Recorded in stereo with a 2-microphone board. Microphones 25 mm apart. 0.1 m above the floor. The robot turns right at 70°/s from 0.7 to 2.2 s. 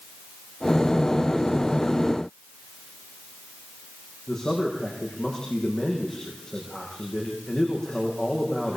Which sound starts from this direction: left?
A man speaking, at 4.3 s.